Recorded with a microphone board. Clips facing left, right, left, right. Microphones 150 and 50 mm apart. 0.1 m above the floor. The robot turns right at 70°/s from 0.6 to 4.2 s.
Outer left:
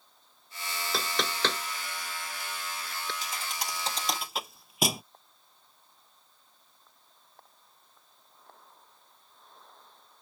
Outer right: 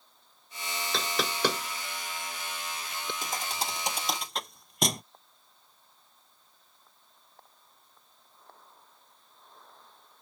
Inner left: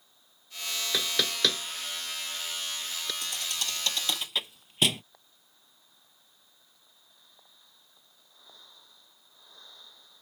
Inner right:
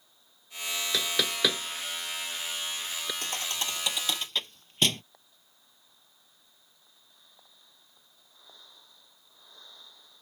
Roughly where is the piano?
I don't hear a piano.